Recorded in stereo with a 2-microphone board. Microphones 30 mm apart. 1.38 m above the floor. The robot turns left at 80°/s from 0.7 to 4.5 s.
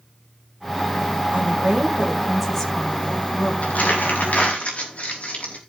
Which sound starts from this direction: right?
A woman speaking, at 1.3 s.